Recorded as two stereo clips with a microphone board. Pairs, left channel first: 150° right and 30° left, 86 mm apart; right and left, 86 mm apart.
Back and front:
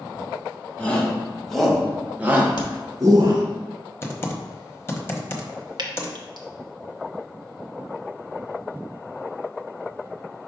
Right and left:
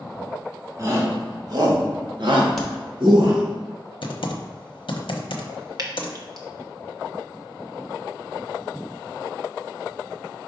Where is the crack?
175° right, 1.1 m.